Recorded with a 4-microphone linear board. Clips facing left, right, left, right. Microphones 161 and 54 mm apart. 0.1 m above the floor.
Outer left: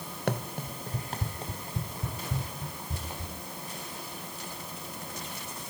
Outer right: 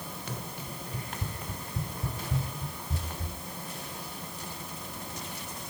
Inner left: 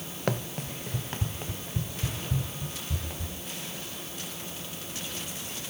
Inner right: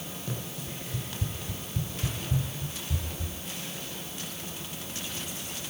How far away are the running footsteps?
About 1.1 m.